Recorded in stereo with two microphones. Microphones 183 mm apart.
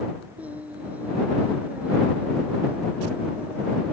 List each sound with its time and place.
0.4 s singing: 10° right (ahead or behind)